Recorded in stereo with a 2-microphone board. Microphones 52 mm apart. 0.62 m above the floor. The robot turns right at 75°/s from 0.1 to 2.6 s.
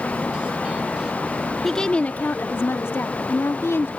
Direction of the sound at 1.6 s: 5° left.